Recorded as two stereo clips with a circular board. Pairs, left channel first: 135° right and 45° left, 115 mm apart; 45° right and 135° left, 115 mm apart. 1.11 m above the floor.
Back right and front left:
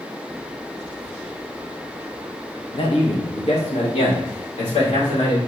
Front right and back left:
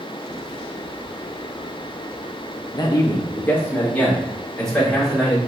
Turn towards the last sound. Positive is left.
turn(degrees=-130)